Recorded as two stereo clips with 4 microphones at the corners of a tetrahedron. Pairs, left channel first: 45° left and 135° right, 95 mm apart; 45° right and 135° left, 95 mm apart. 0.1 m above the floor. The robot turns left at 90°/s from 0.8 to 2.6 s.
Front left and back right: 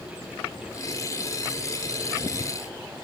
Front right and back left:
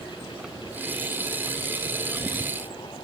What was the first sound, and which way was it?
Only background noise.